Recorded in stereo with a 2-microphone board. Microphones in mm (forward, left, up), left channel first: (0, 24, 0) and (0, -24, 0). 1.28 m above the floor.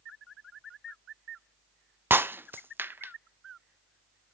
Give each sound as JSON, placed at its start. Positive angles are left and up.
{"t": 2.1, "sound": "breaking glass", "side_deg": -45, "distance_m": 0.5}